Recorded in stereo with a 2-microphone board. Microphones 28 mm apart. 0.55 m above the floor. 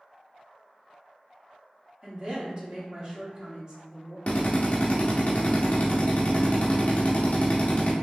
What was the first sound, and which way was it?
A woman speaking, 30° right (ahead or behind).